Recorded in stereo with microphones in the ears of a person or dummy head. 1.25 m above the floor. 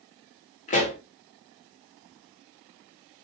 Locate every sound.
0.7 s a pop: 35° left (ahead or behind), 1.1 m